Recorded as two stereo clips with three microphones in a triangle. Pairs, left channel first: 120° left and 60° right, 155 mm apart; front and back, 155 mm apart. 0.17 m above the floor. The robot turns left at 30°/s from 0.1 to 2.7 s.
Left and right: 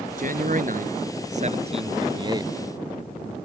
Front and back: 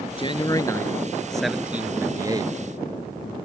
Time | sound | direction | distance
0.2 | a man speaking | 50° right | ?